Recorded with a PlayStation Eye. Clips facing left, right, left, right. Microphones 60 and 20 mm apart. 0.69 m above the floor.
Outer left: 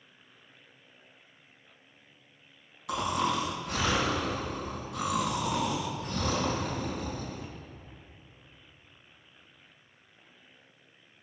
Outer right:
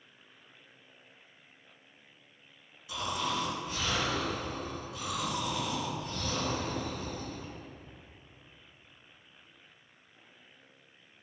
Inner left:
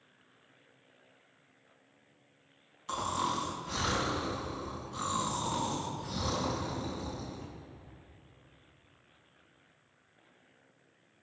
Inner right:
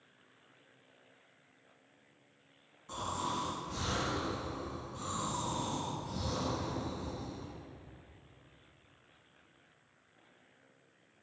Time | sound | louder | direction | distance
2.9 | snoring | outer left 5 dB, inner left 4 dB | 80° left | 3.5 m